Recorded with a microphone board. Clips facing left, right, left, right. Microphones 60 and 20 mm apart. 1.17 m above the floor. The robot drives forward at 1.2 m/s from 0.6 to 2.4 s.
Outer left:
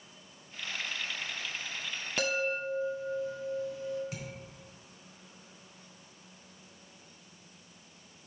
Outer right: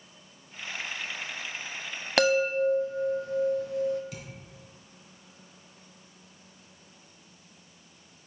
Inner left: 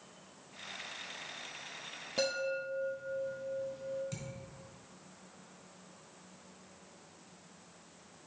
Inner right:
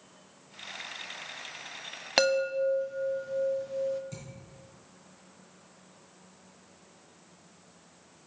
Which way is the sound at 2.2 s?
75° right (ahead or behind).